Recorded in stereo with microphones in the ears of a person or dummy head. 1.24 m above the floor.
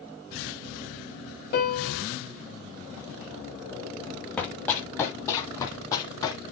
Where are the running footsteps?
5° left (ahead or behind), 2 m; by 6.4 s 25° left (ahead or behind), 3.5 m.